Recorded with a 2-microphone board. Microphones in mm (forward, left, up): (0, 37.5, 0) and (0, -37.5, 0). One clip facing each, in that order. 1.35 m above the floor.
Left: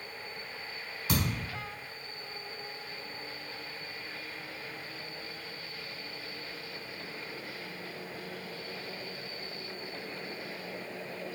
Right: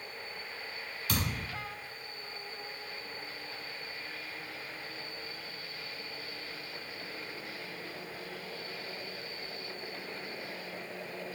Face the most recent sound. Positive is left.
turn(degrees=25)  # may be behind; listen again after turning